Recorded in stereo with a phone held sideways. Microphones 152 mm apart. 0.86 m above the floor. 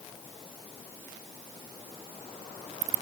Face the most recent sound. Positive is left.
No sound to turn to.